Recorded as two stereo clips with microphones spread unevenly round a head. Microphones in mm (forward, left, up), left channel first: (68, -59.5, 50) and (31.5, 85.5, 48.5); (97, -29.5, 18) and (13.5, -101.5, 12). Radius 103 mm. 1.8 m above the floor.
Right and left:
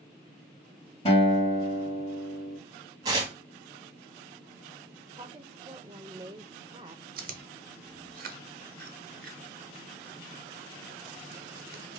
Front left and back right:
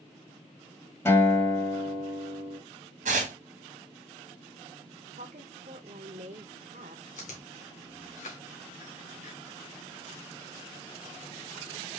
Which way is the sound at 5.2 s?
175° left.